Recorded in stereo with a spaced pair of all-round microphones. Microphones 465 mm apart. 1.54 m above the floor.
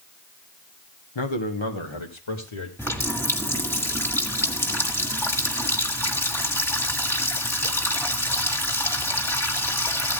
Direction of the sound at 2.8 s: 5° left (ahead or behind).